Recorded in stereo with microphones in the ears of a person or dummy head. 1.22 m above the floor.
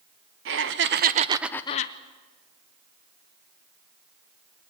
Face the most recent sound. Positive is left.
turn(degrees=45)  # may be behind; listen again after turning